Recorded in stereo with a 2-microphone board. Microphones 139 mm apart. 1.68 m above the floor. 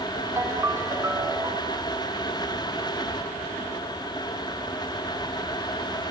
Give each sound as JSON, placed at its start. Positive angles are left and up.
{"t": 0.4, "sound": "a ringtone", "side_deg": -20, "distance_m": 2.5}